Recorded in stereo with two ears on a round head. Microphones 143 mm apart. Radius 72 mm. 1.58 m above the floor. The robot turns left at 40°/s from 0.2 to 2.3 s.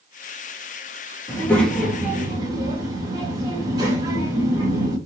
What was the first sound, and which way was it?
A child speaking, 20° left.